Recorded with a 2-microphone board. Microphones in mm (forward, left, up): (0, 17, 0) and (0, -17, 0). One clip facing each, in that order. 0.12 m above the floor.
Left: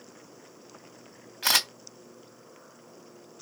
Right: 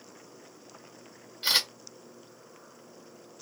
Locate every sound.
1.4 s a camera shutter: 80° left, 1.9 m